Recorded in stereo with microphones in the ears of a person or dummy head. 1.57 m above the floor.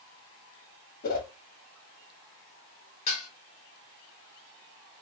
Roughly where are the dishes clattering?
Left.